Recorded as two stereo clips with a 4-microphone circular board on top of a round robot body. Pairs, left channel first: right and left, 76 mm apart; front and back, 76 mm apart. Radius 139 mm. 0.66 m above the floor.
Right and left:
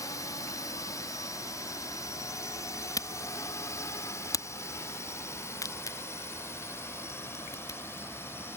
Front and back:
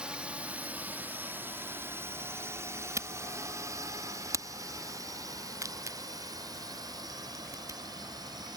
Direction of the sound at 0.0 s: 105° right.